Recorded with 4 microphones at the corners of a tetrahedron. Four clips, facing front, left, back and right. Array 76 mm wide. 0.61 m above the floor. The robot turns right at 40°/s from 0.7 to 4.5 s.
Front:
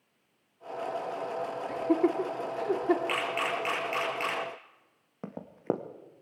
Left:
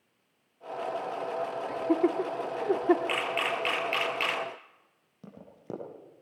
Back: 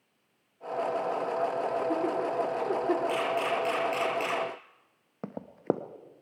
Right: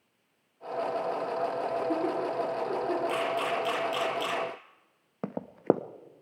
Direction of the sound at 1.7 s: 35° left.